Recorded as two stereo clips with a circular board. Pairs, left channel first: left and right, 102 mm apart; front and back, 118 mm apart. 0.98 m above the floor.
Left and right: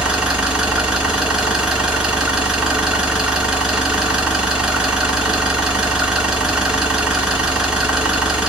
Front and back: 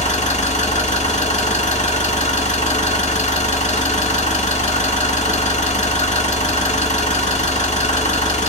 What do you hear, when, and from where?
0.0 s an engine running: 5° right, 1.5 m